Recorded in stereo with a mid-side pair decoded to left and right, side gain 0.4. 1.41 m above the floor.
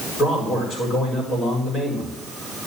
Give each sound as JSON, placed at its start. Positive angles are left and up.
{"t": 0.2, "sound": "a man speaking", "azimuth_deg": 65, "distance_m": 4.5}